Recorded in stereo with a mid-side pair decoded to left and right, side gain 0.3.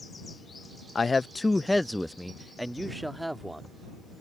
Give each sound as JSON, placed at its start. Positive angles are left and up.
{"t": 0.9, "sound": "a man speaking", "azimuth_deg": 50}